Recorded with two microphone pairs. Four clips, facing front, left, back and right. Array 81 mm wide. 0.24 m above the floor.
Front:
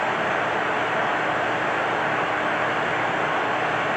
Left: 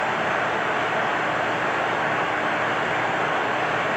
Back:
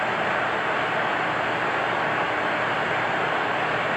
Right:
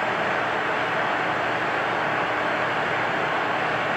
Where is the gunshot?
No gunshot in this recording.